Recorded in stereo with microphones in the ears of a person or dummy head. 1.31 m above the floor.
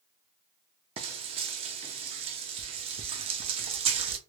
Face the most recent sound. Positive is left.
turn(degrees=-30)  # may be behind; listen again after turning